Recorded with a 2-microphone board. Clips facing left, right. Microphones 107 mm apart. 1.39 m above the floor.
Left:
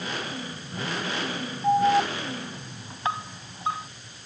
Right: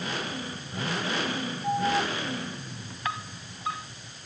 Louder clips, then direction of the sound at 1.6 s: Left 6 dB; 30° left (ahead or behind).